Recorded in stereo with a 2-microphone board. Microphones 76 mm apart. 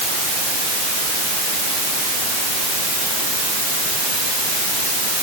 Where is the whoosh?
I don't hear a whoosh.